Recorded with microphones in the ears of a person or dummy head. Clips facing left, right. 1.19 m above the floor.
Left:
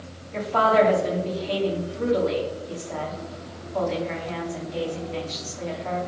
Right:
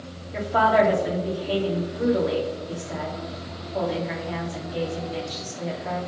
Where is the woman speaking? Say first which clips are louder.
Even; 20° right (ahead or behind), 1.9 m.